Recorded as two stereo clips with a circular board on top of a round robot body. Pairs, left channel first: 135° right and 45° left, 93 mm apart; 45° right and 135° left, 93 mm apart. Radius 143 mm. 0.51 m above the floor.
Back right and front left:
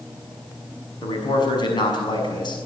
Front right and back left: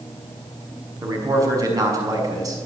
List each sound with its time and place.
1.0 s a man speaking: 175° right, 6 m